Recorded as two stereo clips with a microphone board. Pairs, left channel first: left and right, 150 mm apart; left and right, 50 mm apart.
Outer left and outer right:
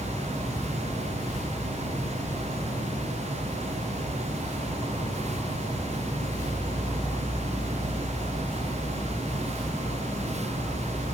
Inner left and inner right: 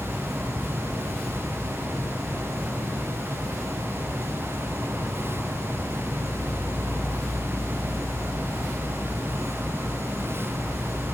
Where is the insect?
20° right (ahead or behind), 1.2 m.